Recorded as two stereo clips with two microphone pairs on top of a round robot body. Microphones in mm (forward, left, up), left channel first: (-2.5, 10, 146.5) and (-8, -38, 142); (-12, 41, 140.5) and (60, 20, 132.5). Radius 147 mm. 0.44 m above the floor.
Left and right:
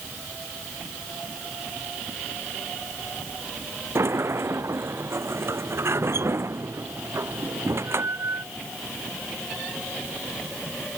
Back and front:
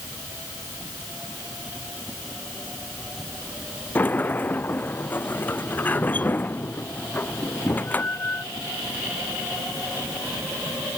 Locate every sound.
4.0 s a sliding door: 130° right